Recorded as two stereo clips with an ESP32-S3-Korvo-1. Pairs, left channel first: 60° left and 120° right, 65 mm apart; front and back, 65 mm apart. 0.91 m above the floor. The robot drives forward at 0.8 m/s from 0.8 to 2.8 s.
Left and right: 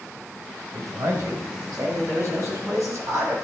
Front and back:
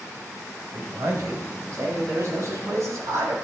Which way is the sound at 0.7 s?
140° right.